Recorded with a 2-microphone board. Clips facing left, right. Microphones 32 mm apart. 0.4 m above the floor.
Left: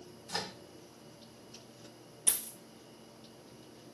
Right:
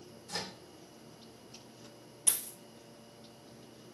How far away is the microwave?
About 0.6 m.